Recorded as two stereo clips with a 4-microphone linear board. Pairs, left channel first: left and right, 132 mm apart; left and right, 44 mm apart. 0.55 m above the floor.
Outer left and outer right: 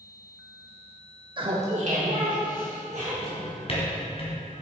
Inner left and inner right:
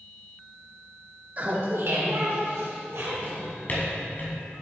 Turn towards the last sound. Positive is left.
turn(degrees=45)  # may be behind; listen again after turning